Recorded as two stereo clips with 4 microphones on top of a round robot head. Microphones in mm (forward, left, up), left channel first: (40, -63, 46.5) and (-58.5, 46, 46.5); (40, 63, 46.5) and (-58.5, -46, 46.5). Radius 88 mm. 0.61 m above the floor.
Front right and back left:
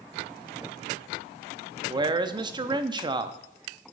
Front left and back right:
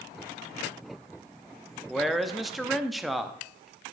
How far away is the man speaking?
About 0.7 m.